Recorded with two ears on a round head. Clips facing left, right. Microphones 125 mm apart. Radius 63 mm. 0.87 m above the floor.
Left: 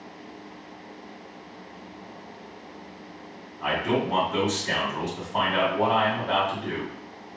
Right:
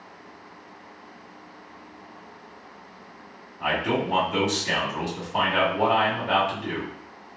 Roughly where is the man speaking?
Centre.